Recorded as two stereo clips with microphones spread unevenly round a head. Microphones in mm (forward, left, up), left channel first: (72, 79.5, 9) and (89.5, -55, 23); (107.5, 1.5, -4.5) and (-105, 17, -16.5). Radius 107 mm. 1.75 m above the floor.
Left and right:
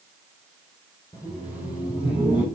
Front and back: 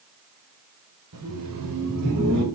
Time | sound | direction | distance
1.1 | laughter | 175° left | 5 m